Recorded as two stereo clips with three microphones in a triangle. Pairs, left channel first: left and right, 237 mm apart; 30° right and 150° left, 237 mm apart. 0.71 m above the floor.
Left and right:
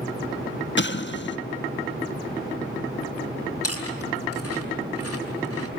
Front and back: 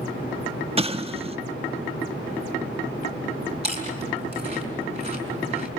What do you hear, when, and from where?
0.8 s an explosion: 95° left, 1.1 m
3.6 s chewing: 85° left, 5 m